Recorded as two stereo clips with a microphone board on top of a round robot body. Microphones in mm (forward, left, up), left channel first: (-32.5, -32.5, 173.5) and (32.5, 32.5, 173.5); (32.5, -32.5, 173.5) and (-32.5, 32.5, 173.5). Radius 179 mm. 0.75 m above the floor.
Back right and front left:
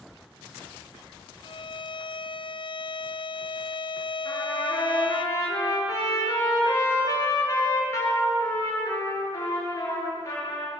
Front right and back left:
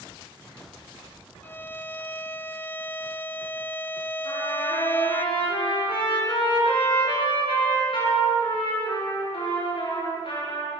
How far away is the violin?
About 0.8 m.